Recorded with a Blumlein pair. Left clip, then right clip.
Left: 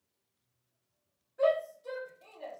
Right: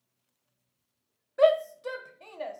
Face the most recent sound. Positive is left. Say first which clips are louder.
# right 6 dB
turn(degrees=-55)